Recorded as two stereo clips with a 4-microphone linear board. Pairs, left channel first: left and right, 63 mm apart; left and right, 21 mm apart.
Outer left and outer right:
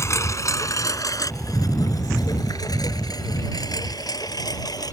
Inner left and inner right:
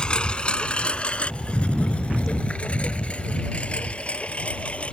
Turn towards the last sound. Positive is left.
turn(degrees=85)